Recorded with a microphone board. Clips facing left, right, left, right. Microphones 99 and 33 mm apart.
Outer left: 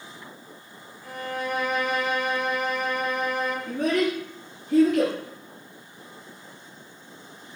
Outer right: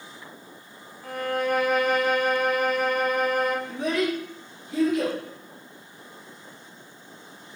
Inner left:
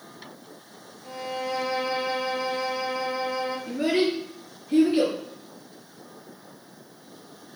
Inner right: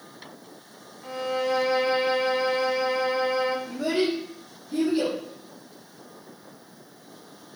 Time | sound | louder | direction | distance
1.0 | a violin | outer right 5 dB, inner right 4 dB | 50° right (ahead or behind) | 1.4 m
3.7 | a child speaking | outer left 2 dB, inner left 1 dB | 50° left (ahead or behind) | 3.5 m